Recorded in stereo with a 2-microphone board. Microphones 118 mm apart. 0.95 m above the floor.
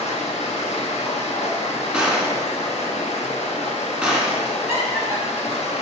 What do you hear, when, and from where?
0.0 s running water: 75° left (ahead or behind), 1.4 m
1.9 s a gunshot: 5° right (ahead or behind), 2.5 m
4.7 s laughter: 25° right (ahead or behind), 3 m